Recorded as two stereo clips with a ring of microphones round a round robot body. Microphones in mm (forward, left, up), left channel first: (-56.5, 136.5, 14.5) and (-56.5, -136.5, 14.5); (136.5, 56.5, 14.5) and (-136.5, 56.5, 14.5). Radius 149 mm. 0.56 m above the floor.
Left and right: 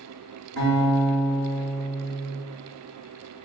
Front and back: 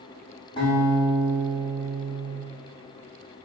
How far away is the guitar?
About 1.8 m.